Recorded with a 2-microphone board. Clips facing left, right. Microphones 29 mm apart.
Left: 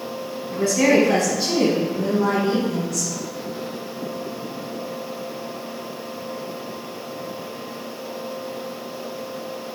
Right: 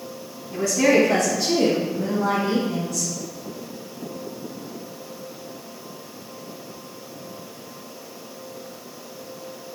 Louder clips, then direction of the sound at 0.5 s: Left 1 dB; 45° left (ahead or behind).